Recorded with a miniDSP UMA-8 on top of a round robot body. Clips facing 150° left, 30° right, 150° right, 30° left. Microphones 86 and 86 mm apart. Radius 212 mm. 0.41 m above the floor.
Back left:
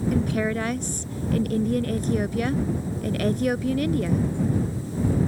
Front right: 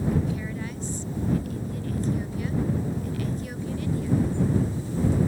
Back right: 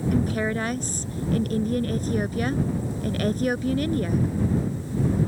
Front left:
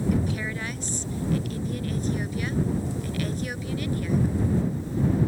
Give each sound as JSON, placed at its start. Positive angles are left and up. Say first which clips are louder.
{"t": 0.1, "sound": "a woman speaking", "louder": "back left 5 dB, back right 4 dB", "azimuth_deg": 170}